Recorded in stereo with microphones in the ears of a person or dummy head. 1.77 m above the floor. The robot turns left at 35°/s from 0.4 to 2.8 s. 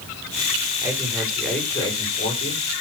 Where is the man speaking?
160° right, 7 m; by 2.6 s 135° left, 7 m.